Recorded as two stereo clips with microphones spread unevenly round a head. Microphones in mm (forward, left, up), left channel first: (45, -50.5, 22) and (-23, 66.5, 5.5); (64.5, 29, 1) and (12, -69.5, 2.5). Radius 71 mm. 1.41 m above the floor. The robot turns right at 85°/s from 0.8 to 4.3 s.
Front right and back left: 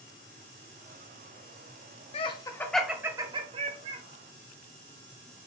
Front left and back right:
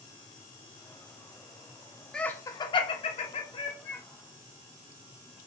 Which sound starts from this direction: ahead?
Laughter, at 2.1 s.